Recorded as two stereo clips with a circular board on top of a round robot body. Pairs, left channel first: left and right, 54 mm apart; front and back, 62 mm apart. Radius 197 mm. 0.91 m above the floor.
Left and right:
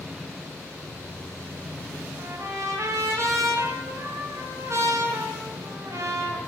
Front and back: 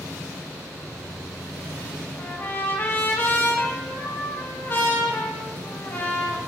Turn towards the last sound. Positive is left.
turn(degrees=-60)